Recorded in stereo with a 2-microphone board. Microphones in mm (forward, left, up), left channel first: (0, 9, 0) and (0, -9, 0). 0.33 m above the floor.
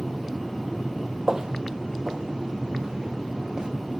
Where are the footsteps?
40° right (ahead or behind), 0.6 m; by 3.7 s 50° right (ahead or behind), 2 m.